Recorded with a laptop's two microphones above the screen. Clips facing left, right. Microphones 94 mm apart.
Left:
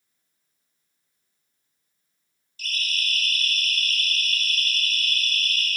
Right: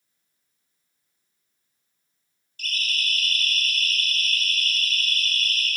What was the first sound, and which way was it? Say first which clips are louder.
A siren: right 1 dB; 50° right (ahead or behind).